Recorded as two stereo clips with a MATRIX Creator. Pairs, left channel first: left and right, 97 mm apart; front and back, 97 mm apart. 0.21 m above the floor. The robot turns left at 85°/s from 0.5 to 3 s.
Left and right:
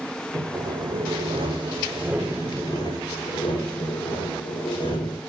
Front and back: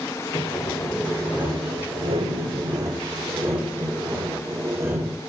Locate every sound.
0.3 s sawing: 30° right, 6.5 m; by 5.2 s 120° left, 6.5 m